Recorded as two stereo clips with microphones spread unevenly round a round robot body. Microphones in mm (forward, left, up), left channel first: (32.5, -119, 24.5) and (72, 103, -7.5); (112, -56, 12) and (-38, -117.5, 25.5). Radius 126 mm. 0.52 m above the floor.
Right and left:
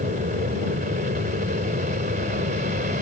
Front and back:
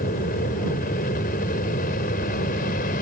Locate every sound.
0.0 s an aircraft: 35° left